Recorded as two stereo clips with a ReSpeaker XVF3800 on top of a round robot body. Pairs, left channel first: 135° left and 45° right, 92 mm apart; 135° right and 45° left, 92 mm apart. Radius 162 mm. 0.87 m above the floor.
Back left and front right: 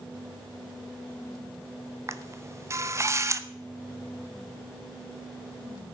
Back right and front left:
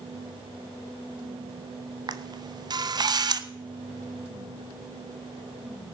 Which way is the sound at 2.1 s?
10° left.